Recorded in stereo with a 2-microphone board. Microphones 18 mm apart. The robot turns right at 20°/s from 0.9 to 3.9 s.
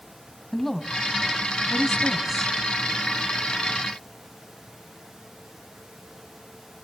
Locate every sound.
0.5 s a woman speaking: 15° left (ahead or behind), 2.5 m; by 2.5 s 15° right (ahead or behind), 2.5 m